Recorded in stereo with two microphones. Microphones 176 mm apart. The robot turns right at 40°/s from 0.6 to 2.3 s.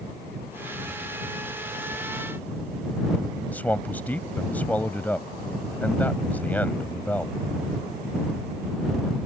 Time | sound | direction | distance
3.5 | a man speaking | 10° left (ahead or behind) | ?